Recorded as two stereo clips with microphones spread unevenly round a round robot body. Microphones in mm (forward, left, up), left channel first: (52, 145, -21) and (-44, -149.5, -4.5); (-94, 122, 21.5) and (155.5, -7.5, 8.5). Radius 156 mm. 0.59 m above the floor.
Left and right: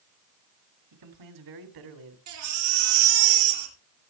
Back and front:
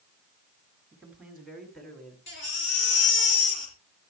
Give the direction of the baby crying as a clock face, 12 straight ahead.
5 o'clock.